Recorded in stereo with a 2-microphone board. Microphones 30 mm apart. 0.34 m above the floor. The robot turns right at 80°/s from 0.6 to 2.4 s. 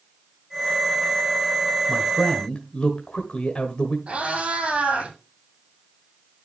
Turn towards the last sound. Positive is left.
turn(degrees=-45)  # may be behind; listen again after turning